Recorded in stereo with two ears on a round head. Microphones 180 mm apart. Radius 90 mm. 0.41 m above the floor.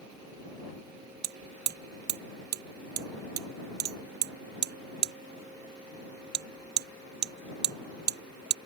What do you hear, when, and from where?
1.2 s hammering: 50° right (ahead or behind)